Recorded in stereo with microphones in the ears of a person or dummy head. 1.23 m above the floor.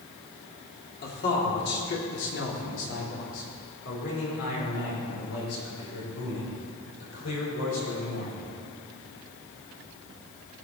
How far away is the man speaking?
About 3 m.